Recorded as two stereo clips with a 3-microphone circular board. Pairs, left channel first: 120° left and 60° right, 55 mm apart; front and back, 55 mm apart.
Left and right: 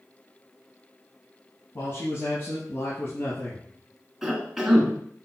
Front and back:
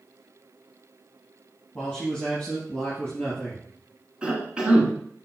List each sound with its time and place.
1.8 s a man speaking: 90° left, 3.5 m; by 3.6 s 75° left, 2.5 m
4.2 s a cough: 140° right, 1.8 m